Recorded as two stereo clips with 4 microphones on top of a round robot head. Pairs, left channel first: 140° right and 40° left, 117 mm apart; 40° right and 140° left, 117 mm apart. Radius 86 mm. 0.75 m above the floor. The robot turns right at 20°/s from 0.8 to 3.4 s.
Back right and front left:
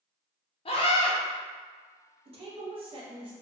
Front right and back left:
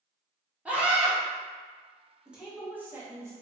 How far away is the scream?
About 0.7 m.